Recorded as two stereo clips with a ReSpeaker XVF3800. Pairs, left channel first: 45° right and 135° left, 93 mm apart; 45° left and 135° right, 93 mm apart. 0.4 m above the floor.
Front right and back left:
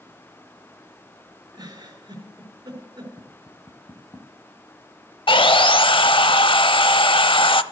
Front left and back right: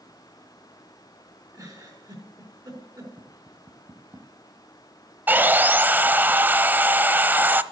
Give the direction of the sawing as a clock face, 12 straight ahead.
2 o'clock.